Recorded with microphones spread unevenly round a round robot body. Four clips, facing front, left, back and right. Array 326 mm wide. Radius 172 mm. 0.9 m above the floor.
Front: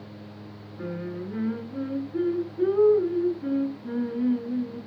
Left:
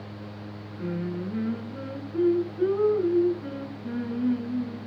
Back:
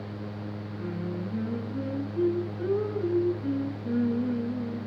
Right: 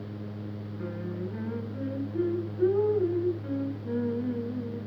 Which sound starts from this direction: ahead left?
Singing, at 0.8 s.